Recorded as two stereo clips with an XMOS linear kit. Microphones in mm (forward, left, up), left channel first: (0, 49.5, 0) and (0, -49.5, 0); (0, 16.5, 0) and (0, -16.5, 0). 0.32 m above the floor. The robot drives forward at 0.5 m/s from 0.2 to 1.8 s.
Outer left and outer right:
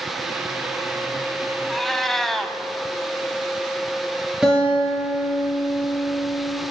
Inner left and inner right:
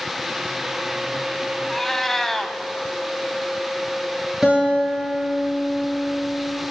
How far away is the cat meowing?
About 0.6 m.